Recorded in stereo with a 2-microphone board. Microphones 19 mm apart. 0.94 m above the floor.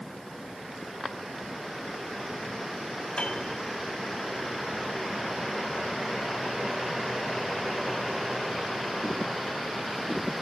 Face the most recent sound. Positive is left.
turn(degrees=70)  # may be behind; listen again after turning